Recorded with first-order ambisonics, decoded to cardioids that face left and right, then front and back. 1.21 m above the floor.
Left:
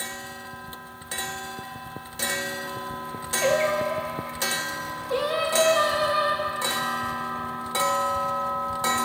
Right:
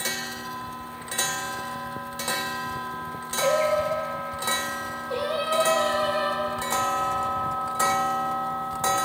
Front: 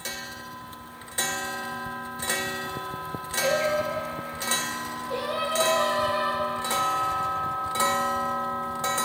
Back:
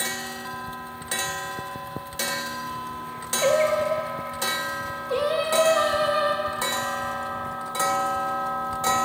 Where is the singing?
140° left, 1.0 m.